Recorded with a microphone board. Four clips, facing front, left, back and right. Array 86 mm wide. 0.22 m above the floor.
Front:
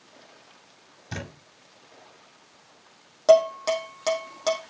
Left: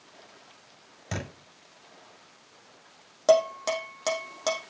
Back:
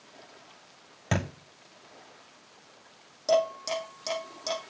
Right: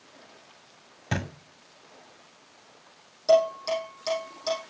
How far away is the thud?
About 6.5 m.